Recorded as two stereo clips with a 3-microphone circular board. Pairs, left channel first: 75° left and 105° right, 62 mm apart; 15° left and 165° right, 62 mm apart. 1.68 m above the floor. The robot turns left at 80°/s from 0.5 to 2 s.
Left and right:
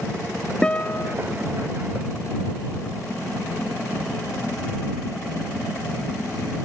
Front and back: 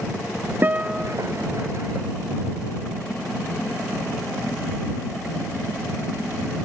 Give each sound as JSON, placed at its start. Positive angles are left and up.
{"t": 0.6, "sound": "a guitar", "azimuth_deg": 150}